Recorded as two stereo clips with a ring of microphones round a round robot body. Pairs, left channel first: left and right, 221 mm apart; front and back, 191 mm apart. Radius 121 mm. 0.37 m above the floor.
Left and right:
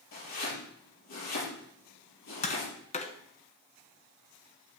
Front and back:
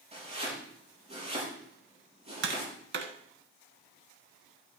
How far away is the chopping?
About 5.5 m.